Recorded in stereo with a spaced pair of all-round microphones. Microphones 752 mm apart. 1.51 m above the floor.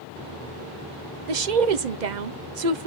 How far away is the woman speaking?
About 0.9 m.